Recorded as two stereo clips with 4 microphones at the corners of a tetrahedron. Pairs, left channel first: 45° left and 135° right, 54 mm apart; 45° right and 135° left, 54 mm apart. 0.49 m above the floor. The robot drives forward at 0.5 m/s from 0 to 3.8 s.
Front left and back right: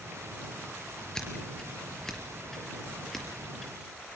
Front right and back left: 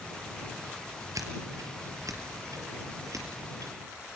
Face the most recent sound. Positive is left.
turn(degrees=135)